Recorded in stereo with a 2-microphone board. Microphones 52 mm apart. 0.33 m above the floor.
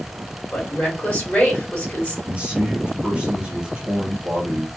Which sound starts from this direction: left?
A woman speaking, at 0.5 s.